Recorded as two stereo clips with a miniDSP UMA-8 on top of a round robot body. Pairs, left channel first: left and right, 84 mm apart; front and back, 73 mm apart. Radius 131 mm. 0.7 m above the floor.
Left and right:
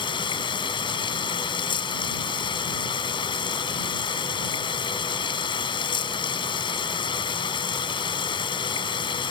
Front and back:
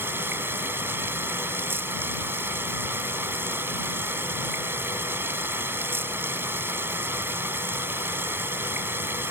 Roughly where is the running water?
Behind left.